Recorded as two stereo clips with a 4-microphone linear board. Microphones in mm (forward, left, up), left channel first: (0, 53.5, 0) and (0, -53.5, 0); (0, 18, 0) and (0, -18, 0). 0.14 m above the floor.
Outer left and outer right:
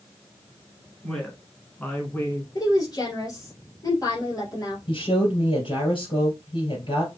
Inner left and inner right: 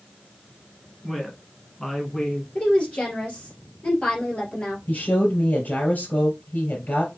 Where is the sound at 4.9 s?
55° left (ahead or behind), 3 m.